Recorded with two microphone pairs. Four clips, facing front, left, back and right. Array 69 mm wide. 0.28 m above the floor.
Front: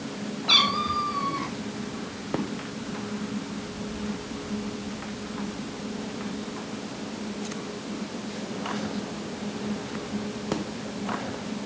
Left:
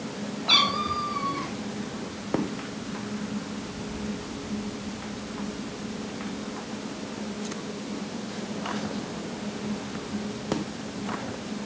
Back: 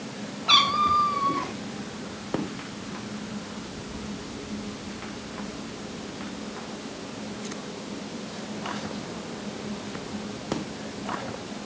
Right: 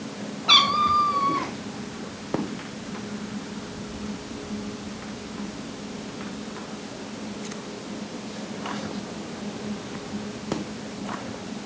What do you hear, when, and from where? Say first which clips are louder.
0.5 s a cat meowing: right 6 dB, back 4 dB; 120° right, 1.8 m